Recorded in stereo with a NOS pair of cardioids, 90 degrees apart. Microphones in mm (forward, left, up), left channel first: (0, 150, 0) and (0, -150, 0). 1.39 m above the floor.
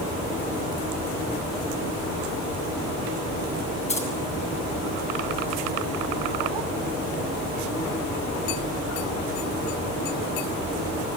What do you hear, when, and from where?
3.9 s keys jangling: 20° left, 8 m